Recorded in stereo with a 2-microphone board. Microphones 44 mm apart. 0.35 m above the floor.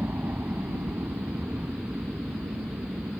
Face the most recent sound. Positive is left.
turn(degrees=-70)  # may be behind; listen again after turning